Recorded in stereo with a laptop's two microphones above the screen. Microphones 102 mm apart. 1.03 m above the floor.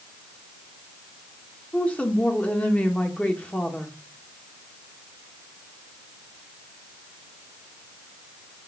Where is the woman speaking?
15° left (ahead or behind), 1.4 m.